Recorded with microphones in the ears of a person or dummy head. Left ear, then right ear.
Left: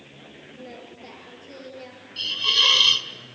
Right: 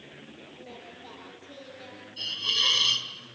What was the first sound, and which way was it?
Singing, 65° left (ahead or behind).